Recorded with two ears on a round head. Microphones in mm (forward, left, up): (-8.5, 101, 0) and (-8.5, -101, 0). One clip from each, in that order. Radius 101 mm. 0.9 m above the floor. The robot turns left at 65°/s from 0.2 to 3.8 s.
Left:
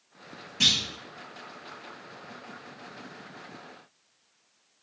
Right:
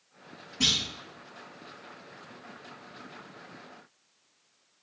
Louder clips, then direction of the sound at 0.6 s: Left 3 dB; 80° left.